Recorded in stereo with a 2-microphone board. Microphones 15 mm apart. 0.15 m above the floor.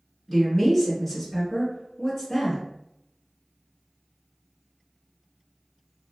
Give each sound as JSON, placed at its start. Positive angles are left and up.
{"t": 0.3, "sound": "a woman speaking", "side_deg": 25, "distance_m": 1.4}